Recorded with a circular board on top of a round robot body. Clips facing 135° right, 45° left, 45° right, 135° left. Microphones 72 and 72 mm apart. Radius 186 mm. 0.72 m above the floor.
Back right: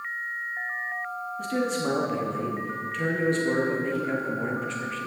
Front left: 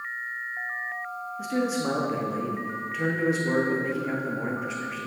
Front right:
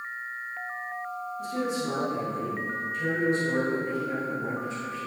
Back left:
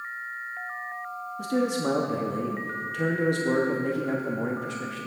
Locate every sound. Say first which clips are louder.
1.4 s a man speaking: front left 1 dB, back left 5 dB; 130° left, 1.4 m